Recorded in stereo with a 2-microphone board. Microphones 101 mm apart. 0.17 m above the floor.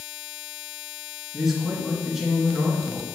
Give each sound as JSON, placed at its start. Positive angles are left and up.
{"t": 1.3, "sound": "a man speaking", "side_deg": -5, "distance_m": 2.5}